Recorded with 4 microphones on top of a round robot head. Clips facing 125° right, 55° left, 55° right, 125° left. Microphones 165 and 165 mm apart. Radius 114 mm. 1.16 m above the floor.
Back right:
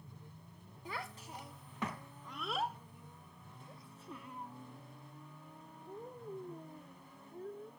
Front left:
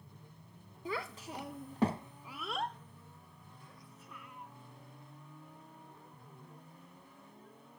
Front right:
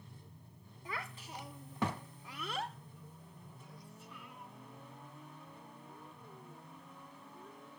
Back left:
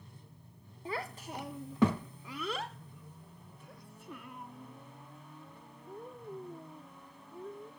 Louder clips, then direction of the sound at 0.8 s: Front left 6 dB, back left 7 dB; 65° left.